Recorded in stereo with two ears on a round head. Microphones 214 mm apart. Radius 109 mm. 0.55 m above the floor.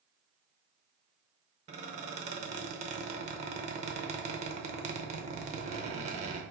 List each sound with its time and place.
1.7 s a squeak: 30° right (ahead or behind), 0.8 m